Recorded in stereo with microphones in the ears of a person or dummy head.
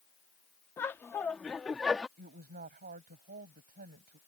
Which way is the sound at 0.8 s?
15° left (ahead or behind).